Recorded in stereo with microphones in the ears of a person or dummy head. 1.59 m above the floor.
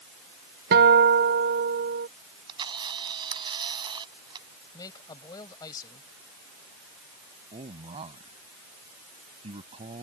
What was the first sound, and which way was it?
A guitar, 50° right (ahead or behind).